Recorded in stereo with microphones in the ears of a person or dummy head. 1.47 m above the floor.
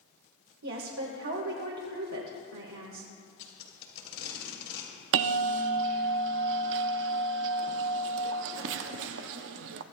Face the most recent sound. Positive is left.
turn(degrees=-65)  # may be behind; listen again after turning